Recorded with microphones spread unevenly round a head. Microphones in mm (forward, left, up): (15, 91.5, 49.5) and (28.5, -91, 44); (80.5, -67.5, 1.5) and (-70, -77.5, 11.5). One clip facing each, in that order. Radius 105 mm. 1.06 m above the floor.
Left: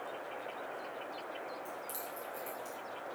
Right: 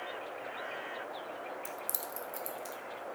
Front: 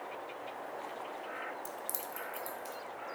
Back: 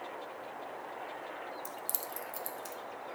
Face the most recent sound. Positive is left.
turn(degrees=-140)